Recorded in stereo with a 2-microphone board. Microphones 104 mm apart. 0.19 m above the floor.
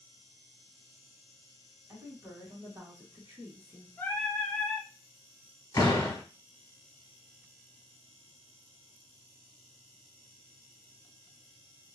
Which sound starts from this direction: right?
A woman speaking, at 1.9 s.